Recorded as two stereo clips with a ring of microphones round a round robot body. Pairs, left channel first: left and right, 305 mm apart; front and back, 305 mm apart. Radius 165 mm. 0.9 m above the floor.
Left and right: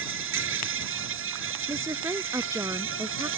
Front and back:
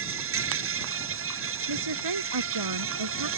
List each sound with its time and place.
0.0 s an insect: 135° right
1.7 s a woman speaking: 170° right